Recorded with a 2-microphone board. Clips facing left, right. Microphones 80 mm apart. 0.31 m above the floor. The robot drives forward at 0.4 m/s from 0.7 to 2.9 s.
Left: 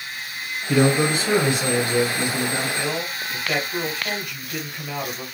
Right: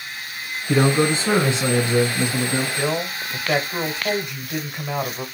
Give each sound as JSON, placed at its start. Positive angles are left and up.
{"t": 0.7, "sound": "a man speaking", "side_deg": -30, "distance_m": 1.0}
{"t": 2.8, "sound": "a man speaking", "side_deg": -25, "distance_m": 1.0}